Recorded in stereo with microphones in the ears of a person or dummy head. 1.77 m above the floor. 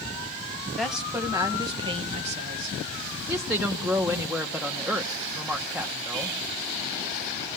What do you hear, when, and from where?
0.8 s a woman speaking: centre (ahead or behind), 1.6 m; by 2.8 s 40° right (ahead or behind), 1.8 m
3.3 s a woman speaking: centre (ahead or behind), 1.1 m